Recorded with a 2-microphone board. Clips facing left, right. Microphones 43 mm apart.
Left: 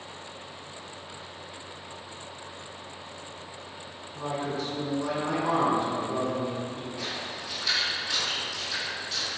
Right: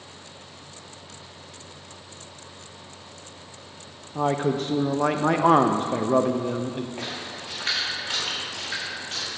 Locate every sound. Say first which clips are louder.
4.2 s a man speaking: right 8 dB; 50° right (ahead or behind), 0.5 m
7.0 s a splash: right 1 dB; 40° right (ahead or behind), 1.7 m